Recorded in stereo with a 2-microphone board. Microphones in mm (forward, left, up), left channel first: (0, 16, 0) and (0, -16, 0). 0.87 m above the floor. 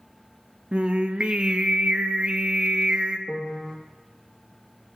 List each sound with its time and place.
0.7 s singing: 35° right (ahead or behind), 0.5 m
3.3 s a piano: 25° left (ahead or behind), 0.6 m